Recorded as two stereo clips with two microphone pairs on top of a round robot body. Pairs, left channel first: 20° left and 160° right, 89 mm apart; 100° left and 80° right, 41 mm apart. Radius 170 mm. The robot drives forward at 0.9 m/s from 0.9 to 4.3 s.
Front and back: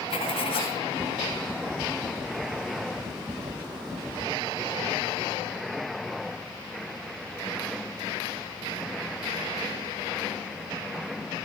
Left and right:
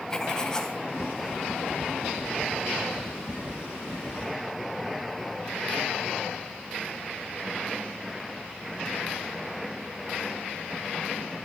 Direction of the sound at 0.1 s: 25° left.